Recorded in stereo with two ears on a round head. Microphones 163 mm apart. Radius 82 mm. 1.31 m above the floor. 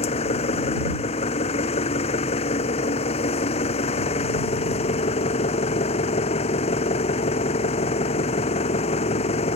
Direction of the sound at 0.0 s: 35° left (ahead or behind).